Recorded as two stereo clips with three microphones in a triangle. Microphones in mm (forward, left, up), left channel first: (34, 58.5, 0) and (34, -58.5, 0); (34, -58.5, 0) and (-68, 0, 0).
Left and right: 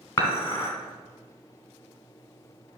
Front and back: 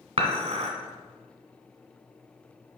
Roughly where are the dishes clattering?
Behind left.